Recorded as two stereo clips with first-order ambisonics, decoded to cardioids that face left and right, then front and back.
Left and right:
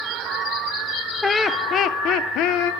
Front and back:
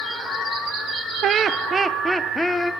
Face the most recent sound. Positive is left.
turn(degrees=75)